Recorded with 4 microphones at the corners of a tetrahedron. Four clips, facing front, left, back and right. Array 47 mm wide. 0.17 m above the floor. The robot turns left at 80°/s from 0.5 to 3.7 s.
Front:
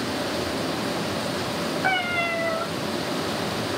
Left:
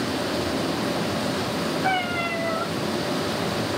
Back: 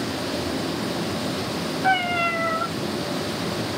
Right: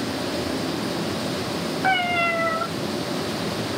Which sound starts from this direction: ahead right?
A cat meowing, at 1.8 s.